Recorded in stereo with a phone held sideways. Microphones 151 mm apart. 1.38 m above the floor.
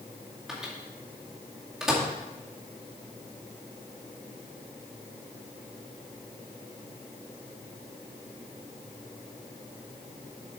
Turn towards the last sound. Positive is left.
turn(degrees=0)  # may be behind; listen again after turning